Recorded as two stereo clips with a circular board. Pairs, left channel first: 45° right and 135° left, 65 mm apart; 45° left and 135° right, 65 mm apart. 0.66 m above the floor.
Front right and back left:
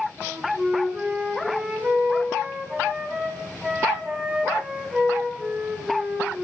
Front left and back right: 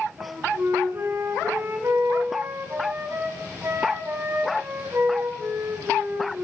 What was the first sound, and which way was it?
A flute, 155° right.